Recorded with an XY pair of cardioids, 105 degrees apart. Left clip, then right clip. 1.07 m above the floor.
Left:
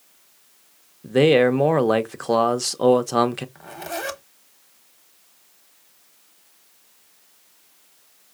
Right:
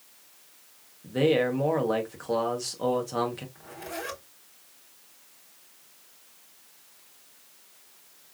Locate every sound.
1.0 s a man speaking: 65° left, 0.6 m
3.5 s a zipper: 65° left, 0.9 m